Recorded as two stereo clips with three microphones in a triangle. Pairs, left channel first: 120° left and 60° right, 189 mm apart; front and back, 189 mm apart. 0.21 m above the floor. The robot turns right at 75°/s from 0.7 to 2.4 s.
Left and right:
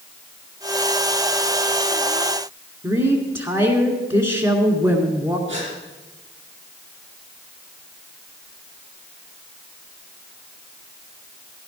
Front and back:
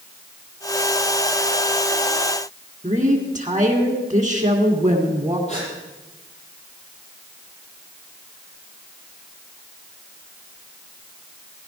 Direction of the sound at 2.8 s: 120° right.